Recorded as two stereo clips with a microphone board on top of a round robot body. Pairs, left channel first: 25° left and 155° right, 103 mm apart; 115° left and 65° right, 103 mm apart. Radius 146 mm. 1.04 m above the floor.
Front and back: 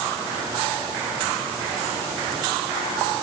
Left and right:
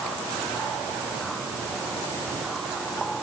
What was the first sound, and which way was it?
Only background noise.